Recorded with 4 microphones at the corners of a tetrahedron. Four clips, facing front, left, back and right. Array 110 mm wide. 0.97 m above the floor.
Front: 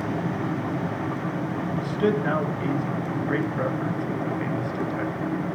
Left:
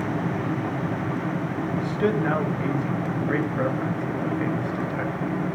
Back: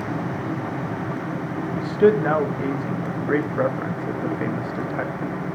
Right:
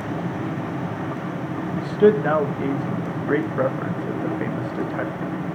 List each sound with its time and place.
1.8 s a man speaking: 140° right, 1.4 m